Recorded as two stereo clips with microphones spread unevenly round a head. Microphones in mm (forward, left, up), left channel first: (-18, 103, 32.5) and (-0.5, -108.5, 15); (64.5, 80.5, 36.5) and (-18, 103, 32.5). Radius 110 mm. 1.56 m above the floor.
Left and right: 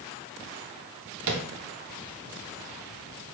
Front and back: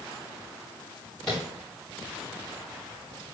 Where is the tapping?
105° right, 1.3 m.